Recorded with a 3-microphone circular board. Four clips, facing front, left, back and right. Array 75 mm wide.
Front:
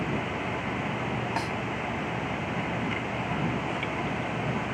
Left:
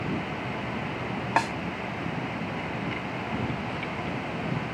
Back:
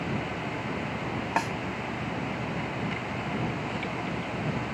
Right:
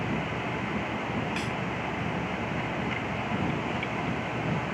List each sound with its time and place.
1.4 s a snare drum: 110° left